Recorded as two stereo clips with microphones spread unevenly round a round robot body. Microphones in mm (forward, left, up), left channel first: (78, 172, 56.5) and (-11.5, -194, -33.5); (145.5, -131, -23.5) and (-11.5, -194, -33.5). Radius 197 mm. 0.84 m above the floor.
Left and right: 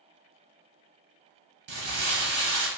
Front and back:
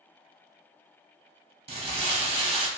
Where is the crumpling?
165° right, 0.7 m.